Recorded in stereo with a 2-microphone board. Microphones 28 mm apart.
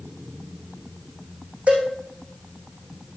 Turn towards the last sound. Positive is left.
turn(degrees=-50)  # may be behind; listen again after turning